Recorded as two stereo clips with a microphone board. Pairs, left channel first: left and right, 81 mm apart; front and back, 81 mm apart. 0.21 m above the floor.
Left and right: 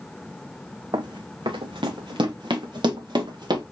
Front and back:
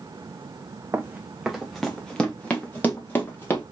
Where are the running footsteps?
115° right, 0.7 m; by 3.6 s 65° right, 1.9 m.